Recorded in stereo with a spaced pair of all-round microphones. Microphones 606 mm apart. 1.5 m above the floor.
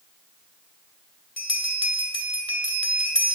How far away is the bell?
About 2 m.